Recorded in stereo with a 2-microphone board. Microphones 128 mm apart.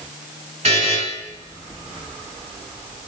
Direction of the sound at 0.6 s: 65° right (ahead or behind).